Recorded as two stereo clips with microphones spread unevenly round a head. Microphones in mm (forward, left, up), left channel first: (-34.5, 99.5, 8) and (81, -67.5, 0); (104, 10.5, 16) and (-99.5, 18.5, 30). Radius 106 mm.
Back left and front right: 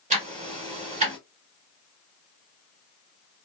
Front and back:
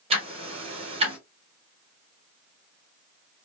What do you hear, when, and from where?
0.1 s ticking: 115° right, 1.3 m